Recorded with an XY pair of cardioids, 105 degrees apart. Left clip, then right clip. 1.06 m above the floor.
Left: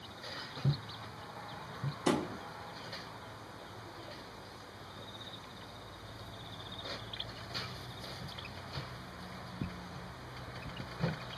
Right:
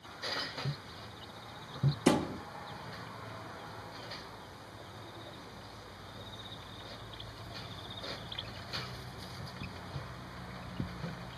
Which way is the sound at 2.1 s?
50° right.